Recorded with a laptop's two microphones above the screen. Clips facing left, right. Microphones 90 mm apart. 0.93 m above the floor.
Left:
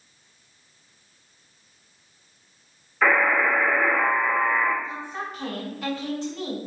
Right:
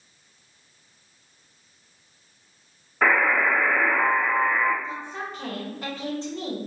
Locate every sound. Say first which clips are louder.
3.0 s a buzzer: left 1 dB; 45° right (ahead or behind), 2.5 m
4.8 s a woman speaking: even; 35° right (ahead or behind), 1.9 m